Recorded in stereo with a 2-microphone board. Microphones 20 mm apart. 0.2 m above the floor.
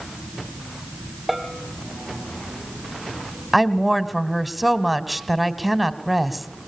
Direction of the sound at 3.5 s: 5° right (ahead or behind).